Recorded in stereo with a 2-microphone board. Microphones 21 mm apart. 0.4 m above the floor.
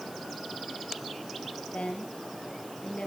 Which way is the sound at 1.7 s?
75° left (ahead or behind).